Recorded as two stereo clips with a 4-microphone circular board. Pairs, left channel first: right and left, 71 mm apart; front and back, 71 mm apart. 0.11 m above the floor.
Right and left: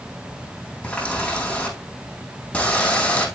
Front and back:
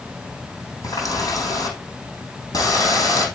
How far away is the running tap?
About 3.5 m.